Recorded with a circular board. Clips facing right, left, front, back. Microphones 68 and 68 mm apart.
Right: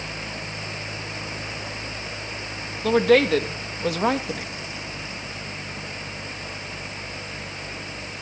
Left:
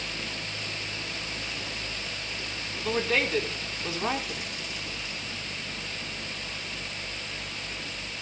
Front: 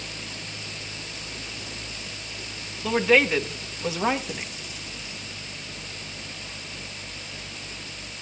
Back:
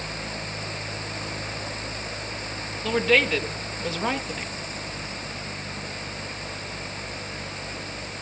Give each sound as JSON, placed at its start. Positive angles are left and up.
{"t": 2.8, "sound": "a woman speaking", "azimuth_deg": -80, "distance_m": 1.7}